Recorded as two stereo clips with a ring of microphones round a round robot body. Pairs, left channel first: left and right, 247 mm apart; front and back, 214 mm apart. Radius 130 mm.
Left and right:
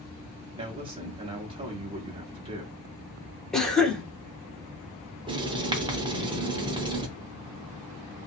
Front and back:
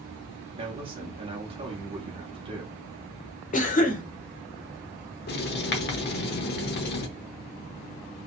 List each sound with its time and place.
0.6 s a man speaking: 140° right, 0.9 m
3.5 s a cough: 5° left, 1.2 m
5.3 s writing: 25° right, 0.8 m